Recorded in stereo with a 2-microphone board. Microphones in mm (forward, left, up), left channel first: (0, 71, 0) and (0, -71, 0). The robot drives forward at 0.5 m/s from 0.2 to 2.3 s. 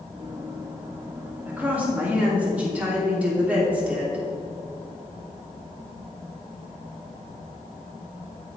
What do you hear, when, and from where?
1.5 s a woman speaking: 10° right (ahead or behind), 2.5 m